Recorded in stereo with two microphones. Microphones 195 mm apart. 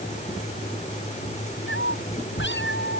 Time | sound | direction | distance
1.7 | a cat meowing | 75° left (ahead or behind) | ?